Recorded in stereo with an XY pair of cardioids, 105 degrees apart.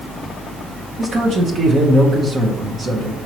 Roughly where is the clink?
I don't hear a clink.